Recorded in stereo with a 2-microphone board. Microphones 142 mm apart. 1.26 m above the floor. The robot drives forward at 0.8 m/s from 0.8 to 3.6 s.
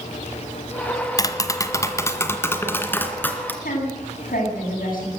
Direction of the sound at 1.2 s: 25° left (ahead or behind).